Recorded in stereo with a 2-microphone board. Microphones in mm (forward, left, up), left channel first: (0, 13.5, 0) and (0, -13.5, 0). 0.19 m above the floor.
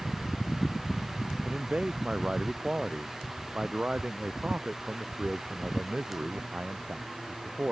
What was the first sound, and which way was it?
A man speaking, 40° right (ahead or behind).